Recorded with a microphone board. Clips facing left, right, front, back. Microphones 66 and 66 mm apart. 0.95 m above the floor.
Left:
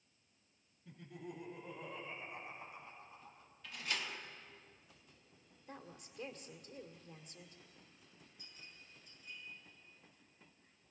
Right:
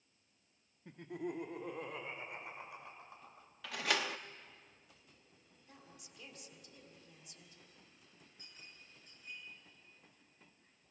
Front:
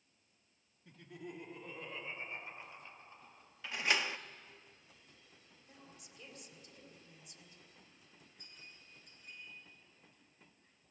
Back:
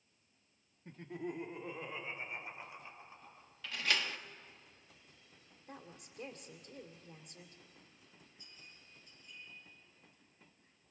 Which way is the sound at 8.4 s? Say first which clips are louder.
Even, front 3 dB; 35° right.